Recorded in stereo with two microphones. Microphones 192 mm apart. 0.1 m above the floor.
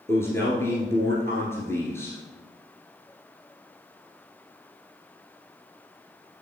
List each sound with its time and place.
0.1 s a man speaking: 15° left (ahead or behind), 1.7 m